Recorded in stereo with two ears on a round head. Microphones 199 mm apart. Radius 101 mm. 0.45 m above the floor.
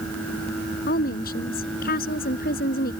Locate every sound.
0.9 s a woman speaking: 40° left (ahead or behind)